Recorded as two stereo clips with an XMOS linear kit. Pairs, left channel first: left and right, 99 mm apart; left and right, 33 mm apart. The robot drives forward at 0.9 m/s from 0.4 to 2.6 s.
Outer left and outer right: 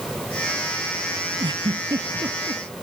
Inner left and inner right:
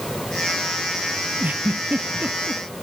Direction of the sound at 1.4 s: 50° right (ahead or behind).